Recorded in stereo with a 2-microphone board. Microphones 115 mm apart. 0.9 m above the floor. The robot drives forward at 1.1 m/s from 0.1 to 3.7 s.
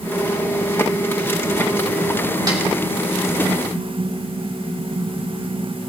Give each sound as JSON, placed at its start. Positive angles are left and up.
{"t": 2.5, "sound": "a snare drum", "side_deg": -35, "distance_m": 3.0}